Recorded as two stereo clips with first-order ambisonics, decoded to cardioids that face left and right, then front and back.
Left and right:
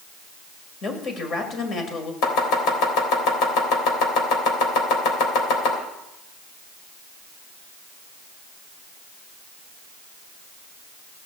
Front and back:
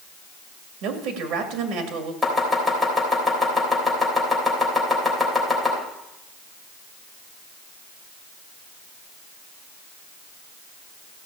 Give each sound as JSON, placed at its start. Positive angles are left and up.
{"t": 0.8, "sound": "a woman speaking", "azimuth_deg": 145, "distance_m": 2.0}
{"t": 2.2, "sound": "chopping", "azimuth_deg": 90, "distance_m": 3.5}